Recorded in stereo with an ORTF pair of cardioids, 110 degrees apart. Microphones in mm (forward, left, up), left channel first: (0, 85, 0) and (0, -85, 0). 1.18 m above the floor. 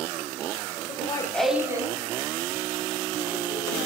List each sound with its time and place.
0.9 s laughter: 45° left, 0.6 m; by 3.8 s 50° right, 2.5 m